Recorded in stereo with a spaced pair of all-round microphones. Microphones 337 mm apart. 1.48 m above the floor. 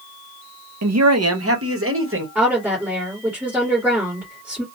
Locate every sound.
0.8 s a man speaking: 50° right (ahead or behind), 0.6 m; by 2.2 s 35° right (ahead or behind), 1.2 m
2.4 s a woman speaking: 5° right (ahead or behind), 1.6 m